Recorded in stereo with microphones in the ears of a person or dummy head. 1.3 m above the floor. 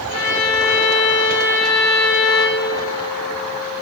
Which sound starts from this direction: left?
A violin, at 0.1 s.